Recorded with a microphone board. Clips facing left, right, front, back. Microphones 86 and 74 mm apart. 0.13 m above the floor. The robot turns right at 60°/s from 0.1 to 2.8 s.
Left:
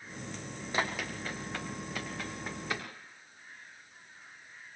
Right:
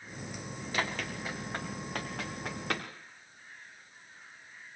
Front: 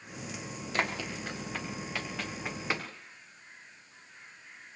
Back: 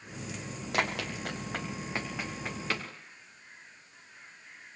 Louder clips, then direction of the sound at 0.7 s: Left 1 dB, back 1 dB; 155° left.